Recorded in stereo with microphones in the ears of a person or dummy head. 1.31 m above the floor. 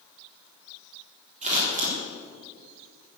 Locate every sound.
1.4 s scissors: 50° right (ahead or behind), 4 m